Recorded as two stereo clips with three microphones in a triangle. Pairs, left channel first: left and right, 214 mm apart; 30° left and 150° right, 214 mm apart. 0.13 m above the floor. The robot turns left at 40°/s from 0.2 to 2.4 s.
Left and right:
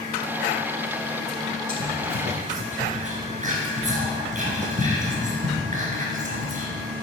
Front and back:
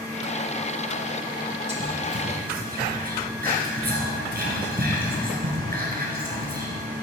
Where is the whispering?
100° right, 2.0 m; by 6.7 s 130° right, 2.0 m.